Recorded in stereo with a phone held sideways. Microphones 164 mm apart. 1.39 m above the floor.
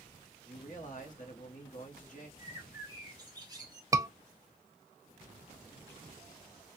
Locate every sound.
0.5 s a man speaking: 55° left (ahead or behind), 1.0 m
2.4 s a bird: 25° right (ahead or behind), 0.9 m
3.9 s a scream: 20° right (ahead or behind), 0.5 m